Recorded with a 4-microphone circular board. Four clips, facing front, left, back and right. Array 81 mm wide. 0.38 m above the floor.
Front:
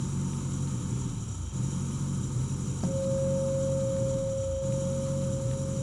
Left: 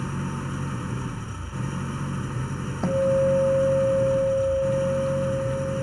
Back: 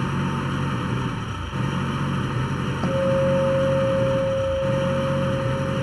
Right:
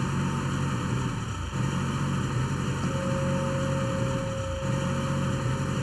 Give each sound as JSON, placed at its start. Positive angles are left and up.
{"t": 0.0, "sound": "an engine running", "azimuth_deg": -175}
{"t": 2.8, "sound": "a guitar", "azimuth_deg": 125}